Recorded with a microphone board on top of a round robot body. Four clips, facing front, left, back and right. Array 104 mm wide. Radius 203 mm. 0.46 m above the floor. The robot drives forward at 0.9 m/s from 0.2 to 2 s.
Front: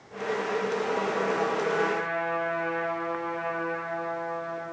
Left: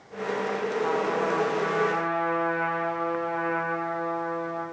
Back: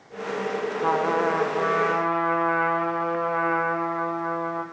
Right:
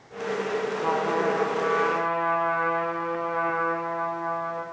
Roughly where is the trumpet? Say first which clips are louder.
Right 2 dB, back 5 dB; behind.